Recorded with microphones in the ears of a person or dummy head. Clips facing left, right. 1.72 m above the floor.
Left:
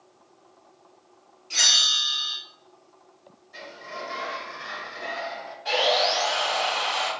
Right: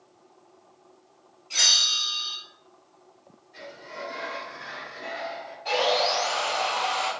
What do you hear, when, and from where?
1.5 s a bell: 15° left (ahead or behind), 1.6 m
3.5 s a sliding door: 65° left (ahead or behind), 1.0 m
5.7 s sawing: 5° left (ahead or behind), 1.9 m